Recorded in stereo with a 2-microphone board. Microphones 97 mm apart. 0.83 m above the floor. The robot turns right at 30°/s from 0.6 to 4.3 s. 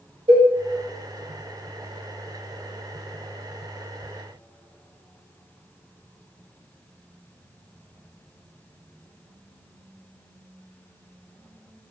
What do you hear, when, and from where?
0.3 s a cowbell: 80° right, 1.3 m